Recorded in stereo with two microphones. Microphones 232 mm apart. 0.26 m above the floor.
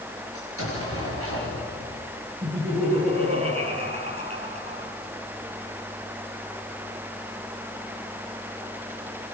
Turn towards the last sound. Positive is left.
turn(degrees=-30)  # may be behind; listen again after turning